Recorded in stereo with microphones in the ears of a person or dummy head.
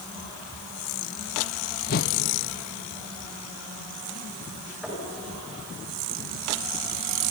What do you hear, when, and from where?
1.9 s a whoosh: 55° left (ahead or behind), 1.3 m
4.8 s knocking: centre (ahead or behind), 7 m